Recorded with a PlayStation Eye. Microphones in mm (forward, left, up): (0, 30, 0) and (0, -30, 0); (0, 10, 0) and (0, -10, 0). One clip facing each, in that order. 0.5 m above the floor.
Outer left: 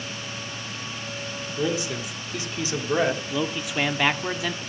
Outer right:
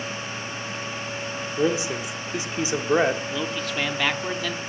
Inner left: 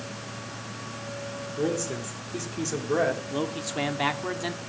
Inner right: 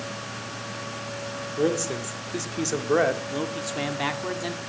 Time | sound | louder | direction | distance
1.6 | a man speaking | outer right 3 dB, inner right 4 dB | 25° right (ahead or behind) | 1.5 m
3.3 | a man speaking | outer left 1 dB, inner right 1 dB | 10° left (ahead or behind) | 1.0 m